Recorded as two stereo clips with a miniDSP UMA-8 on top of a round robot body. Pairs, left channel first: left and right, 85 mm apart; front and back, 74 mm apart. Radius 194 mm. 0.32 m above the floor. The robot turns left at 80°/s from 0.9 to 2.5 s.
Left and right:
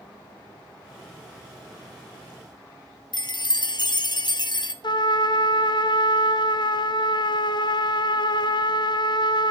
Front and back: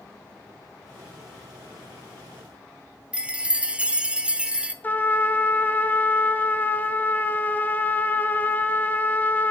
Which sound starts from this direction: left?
A chime, at 3.1 s.